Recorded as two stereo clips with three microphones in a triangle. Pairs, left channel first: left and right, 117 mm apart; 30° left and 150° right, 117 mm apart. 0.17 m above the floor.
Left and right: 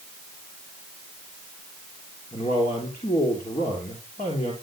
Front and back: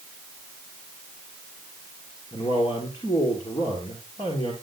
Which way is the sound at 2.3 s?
75° left.